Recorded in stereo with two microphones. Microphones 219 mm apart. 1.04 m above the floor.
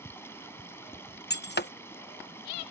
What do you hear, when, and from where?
0.0 s running water: 10° left (ahead or behind)
1.3 s breaking glass: 55° left (ahead or behind)